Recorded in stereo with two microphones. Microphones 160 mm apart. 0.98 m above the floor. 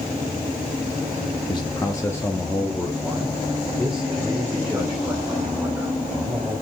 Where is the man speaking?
30° left (ahead or behind), 0.9 m; by 6.5 s 5° right (ahead or behind), 3.5 m.